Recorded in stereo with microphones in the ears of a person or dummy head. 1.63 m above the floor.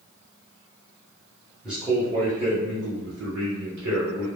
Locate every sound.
1.6 s a man speaking: centre (ahead or behind), 0.8 m; by 4.3 s 70° right (ahead or behind), 1.1 m